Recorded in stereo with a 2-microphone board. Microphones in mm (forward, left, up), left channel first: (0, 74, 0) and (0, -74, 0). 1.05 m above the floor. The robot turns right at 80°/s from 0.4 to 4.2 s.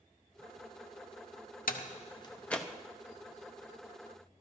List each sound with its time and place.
1.7 s a door slam: 75° left (ahead or behind), 0.6 m; by 2.7 s 5° right (ahead or behind), 0.6 m